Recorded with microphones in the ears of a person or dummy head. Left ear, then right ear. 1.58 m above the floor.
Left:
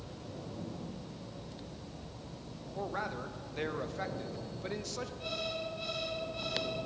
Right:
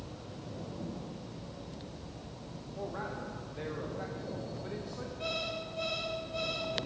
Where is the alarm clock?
35° right (ahead or behind), 3.5 m.